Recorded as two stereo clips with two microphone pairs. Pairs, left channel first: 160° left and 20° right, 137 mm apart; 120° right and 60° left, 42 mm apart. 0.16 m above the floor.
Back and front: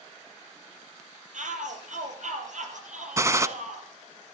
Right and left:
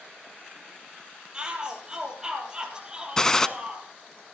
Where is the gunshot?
55° right, 0.6 m.